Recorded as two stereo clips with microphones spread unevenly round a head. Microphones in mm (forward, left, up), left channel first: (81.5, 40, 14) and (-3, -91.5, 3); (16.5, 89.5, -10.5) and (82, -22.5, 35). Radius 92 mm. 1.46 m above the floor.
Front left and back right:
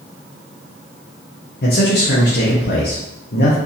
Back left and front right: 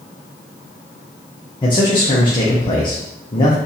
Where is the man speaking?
60° left, 0.9 m.